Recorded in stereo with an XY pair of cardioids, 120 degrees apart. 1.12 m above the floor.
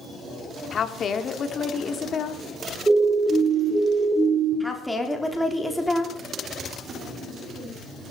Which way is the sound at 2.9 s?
20° right.